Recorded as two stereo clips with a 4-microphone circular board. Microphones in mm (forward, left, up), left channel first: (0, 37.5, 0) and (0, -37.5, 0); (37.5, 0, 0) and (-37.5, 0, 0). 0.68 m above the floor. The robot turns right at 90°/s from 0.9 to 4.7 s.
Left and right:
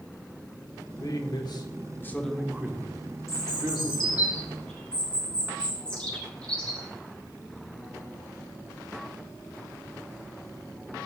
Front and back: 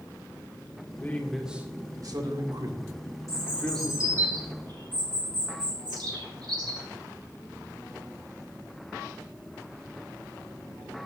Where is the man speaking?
55° left, 1.6 m; by 4.3 s 10° right, 1.6 m.